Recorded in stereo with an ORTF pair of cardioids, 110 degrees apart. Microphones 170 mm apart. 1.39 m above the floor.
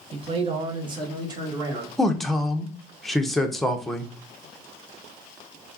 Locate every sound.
0.1 s a man speaking: 35° right, 1.0 m; by 1.9 s 20° right, 2.0 m
2.0 s a man speaking: straight ahead, 0.9 m